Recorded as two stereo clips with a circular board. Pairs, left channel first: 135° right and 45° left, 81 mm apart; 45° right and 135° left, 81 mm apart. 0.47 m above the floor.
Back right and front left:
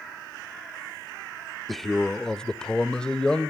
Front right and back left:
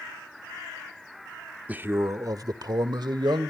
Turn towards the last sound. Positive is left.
turn(degrees=145)